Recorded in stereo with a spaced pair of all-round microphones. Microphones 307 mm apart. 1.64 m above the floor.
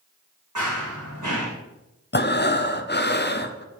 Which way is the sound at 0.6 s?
70° right (ahead or behind).